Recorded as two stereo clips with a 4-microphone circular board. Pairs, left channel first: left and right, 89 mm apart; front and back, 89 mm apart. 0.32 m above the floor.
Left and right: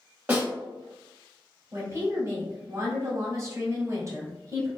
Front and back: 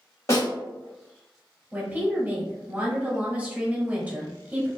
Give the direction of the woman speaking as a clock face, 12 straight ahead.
4 o'clock.